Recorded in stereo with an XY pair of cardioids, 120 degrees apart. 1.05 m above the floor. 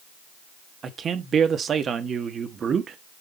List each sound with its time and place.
0.8 s a man speaking: 45° right, 1.3 m